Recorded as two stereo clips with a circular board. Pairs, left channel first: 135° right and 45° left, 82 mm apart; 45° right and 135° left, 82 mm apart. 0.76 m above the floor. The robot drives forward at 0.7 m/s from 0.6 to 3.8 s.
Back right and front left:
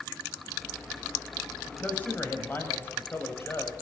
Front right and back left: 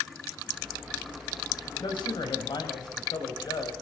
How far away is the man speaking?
About 5 m.